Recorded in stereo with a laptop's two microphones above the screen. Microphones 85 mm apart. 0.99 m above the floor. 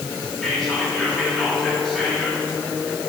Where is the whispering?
5° left (ahead or behind), 1.9 m.